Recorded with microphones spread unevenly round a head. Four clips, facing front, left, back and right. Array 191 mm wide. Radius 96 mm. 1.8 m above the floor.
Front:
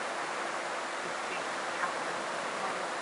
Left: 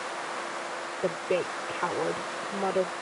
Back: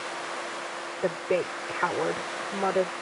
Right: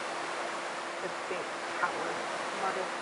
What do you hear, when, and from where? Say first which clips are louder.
1.0 s a woman speaking: left 12 dB, back 9 dB; 145° left